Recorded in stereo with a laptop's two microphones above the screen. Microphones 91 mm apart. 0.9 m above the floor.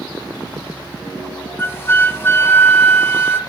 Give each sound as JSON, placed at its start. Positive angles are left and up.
{"t": 1.6, "sound": "a flute", "side_deg": 25, "distance_m": 0.6}